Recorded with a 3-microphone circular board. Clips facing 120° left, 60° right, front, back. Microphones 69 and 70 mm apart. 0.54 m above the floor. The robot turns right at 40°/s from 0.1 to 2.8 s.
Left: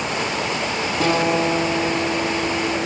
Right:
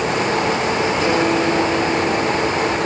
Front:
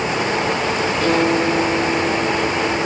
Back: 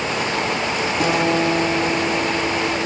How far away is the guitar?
About 3.5 m.